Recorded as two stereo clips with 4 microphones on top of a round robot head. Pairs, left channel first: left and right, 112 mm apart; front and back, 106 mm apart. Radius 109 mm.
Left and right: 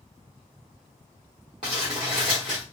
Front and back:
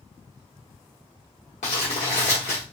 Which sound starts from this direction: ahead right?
Crumpling, at 1.6 s.